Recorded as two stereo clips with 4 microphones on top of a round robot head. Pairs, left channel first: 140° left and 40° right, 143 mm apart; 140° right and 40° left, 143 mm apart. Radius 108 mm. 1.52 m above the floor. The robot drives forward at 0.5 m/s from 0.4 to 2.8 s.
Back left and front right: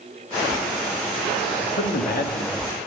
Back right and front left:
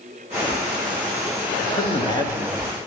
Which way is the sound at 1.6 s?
150° left.